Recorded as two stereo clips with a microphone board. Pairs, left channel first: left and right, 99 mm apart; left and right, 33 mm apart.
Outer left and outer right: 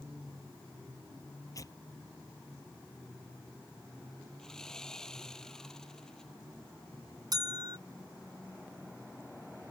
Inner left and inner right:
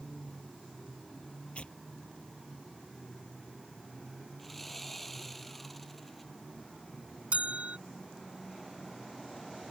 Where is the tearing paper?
40° left (ahead or behind).